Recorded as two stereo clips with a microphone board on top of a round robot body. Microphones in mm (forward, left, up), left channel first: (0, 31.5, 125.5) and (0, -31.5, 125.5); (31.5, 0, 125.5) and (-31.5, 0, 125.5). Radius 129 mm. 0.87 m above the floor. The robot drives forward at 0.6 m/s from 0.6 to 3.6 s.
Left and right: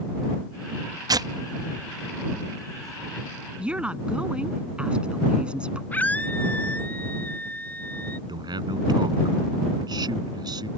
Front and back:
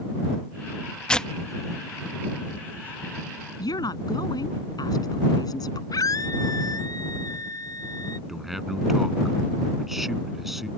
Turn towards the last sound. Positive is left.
turn(degrees=-95)